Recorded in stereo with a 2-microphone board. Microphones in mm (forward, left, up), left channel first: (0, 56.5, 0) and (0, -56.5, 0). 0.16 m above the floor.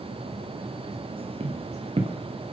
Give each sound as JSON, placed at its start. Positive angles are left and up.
{"t": 1.4, "sound": "footsteps", "side_deg": -65, "distance_m": 1.1}